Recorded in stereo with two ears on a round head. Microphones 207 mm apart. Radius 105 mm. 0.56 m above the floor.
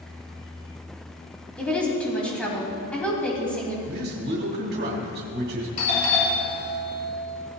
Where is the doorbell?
30° left (ahead or behind), 3 m.